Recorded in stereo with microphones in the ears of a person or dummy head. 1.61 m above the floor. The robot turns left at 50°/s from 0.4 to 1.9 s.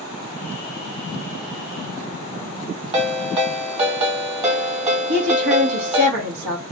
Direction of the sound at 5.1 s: 65° right (ahead or behind).